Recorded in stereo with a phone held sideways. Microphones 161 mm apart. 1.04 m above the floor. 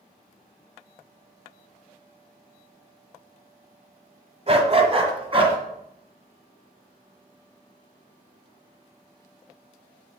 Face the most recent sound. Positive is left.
turn(degrees=-35)  # may be behind; listen again after turning